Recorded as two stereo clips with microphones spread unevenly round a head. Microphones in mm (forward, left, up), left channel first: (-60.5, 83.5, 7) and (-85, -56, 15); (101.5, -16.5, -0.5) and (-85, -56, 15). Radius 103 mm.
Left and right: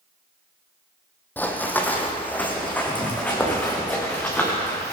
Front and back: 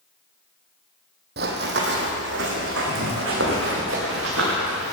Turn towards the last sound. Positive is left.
turn(degrees=160)